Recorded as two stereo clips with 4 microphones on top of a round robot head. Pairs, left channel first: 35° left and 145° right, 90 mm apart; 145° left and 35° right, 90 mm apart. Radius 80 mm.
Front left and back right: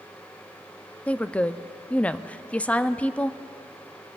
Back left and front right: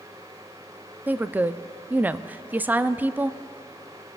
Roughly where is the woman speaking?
Ahead.